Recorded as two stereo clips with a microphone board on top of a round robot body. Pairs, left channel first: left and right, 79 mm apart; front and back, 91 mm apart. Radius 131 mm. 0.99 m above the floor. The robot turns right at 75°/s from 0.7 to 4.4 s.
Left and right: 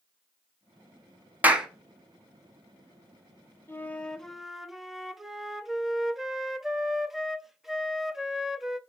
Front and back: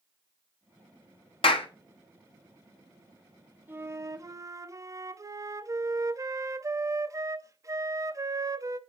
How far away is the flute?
About 0.9 m.